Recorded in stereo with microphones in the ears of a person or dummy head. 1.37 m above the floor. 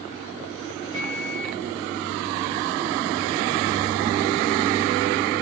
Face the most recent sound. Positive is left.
turn(degrees=-40)  # may be behind; listen again after turning